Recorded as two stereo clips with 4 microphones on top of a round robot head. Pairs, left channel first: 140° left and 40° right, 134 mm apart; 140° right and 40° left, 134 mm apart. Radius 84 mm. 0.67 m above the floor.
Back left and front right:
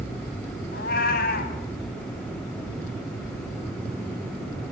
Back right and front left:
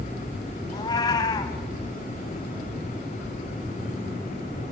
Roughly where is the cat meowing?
Behind left.